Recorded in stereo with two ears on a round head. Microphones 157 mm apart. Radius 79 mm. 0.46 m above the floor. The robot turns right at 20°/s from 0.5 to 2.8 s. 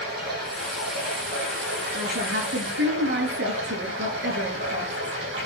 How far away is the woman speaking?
About 6.5 m.